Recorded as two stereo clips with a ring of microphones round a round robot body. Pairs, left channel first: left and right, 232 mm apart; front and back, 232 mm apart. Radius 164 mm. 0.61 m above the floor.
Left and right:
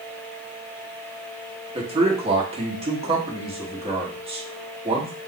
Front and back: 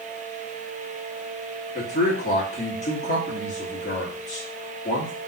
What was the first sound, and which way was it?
A man speaking, 40° right.